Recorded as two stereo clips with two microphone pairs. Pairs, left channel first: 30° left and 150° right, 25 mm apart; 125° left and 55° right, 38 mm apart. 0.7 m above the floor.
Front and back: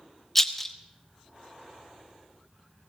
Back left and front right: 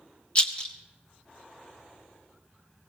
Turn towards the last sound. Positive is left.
turn(degrees=105)